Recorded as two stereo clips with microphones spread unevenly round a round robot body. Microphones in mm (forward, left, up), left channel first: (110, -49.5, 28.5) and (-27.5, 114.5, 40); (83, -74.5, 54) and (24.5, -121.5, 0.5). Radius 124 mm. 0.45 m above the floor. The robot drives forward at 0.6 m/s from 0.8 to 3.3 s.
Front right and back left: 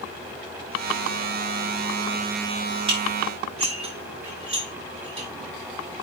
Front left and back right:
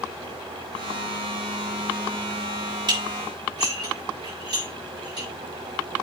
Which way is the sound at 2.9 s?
160° right.